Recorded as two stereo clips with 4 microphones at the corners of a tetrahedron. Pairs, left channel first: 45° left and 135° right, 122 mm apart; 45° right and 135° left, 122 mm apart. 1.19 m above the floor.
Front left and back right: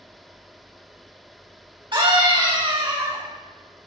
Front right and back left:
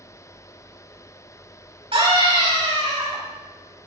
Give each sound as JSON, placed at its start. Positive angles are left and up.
{"t": 1.9, "sound": "a scream", "azimuth_deg": 175, "distance_m": 7.0}